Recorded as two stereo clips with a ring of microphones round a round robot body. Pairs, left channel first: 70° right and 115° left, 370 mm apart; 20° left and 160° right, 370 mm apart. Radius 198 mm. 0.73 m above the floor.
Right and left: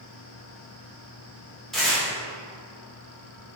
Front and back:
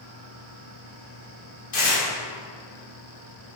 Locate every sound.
1.7 s tearing paper: 20° left, 2.5 m